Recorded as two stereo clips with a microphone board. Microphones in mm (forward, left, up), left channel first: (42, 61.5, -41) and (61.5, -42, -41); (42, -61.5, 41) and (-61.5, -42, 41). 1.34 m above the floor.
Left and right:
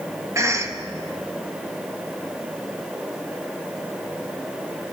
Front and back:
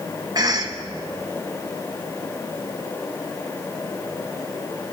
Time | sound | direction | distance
0.3 | a cough | 140° right | 2 m